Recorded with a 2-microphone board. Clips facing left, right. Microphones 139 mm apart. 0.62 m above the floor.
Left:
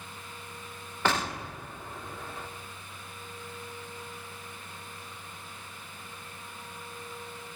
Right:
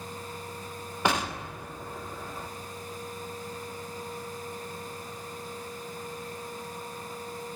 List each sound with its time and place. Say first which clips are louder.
1.1 s an explosion: right 1 dB; 15° right (ahead or behind), 1.2 m